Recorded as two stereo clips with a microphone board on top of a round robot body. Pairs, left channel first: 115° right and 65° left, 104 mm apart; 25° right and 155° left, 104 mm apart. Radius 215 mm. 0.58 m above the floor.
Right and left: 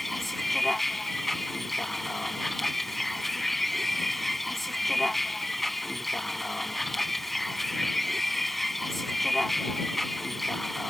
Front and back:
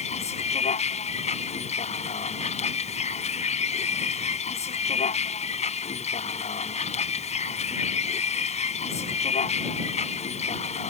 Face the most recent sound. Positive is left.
turn(degrees=-25)